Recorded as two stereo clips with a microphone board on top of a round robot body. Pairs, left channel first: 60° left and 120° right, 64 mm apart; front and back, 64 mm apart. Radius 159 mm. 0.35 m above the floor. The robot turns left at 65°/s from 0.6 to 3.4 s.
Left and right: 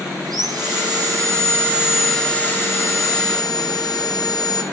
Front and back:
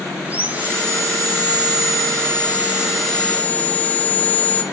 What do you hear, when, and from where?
0.2 s sawing: 115° right, 4 m; by 4.6 s 65° left, 4 m